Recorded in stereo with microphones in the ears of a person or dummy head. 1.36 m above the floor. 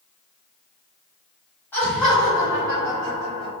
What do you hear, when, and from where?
1.7 s laughter: 10° left (ahead or behind), 1.6 m; by 3.5 s 35° right (ahead or behind), 2.0 m